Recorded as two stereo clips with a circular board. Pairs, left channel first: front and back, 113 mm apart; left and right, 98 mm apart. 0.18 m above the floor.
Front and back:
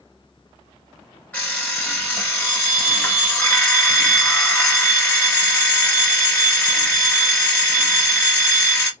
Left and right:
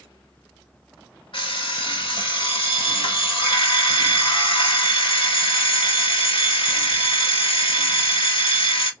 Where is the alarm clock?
70° left, 1.5 m.